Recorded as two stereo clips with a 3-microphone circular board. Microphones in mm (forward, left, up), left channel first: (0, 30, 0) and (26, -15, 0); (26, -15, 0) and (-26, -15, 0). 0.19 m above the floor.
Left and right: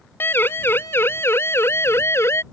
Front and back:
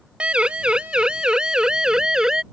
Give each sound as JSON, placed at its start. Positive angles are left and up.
{"t": 0.2, "sound": "a siren", "azimuth_deg": 120}